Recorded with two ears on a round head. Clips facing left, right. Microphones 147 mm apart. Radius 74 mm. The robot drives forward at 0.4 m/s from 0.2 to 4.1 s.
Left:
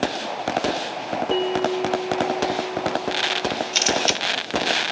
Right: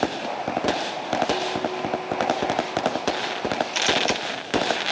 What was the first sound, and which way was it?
A bell, 40° left (ahead or behind).